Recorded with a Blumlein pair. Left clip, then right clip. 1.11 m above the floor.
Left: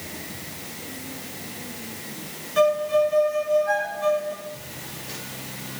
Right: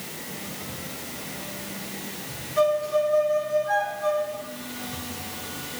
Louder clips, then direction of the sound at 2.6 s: Left 2 dB; 60° left.